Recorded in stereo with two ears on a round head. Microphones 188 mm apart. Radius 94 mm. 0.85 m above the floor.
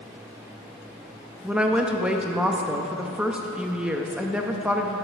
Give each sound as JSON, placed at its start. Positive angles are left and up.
{"t": 1.4, "sound": "a woman speaking", "side_deg": -5, "distance_m": 0.6}